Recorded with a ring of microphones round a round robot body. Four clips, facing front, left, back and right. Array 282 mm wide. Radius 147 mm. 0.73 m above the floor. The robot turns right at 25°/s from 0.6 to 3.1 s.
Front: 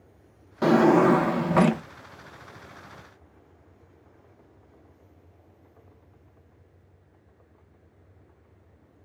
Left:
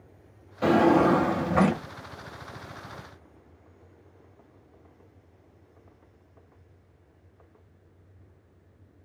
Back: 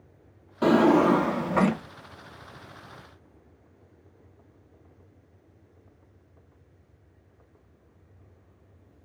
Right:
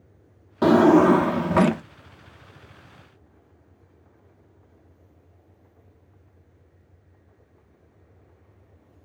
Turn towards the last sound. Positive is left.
turn(degrees=-25)